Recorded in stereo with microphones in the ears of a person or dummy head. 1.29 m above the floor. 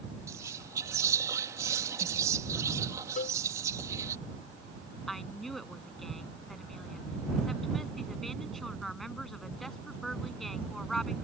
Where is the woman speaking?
5° left (ahead or behind).